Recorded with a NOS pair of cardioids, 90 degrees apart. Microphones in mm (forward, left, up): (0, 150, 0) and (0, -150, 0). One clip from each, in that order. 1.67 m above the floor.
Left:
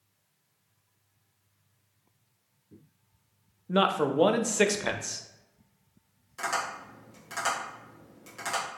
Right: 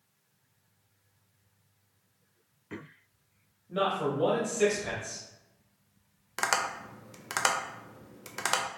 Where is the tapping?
55° right, 0.6 m.